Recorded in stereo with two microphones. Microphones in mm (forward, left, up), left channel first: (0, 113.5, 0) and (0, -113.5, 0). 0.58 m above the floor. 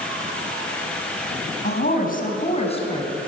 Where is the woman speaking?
45° left (ahead or behind), 4.5 m; by 3.2 s 20° left (ahead or behind), 5 m.